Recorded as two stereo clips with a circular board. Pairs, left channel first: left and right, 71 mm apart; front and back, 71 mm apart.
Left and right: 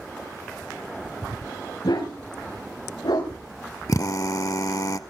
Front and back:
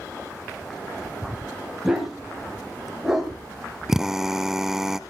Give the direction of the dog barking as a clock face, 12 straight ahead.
9 o'clock.